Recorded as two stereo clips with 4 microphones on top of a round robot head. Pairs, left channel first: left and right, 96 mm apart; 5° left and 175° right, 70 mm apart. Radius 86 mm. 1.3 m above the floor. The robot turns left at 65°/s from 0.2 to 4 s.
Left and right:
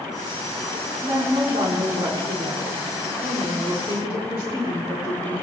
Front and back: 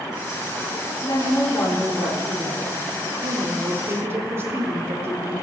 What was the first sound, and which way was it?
A woman speaking, 25° right.